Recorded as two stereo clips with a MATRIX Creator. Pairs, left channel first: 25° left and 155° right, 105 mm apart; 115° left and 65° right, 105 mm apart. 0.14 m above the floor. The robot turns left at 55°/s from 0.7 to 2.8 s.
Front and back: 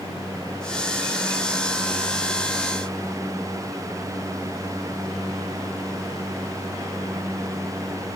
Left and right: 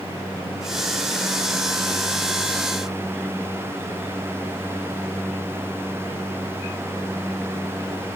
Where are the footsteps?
No footsteps in this recording.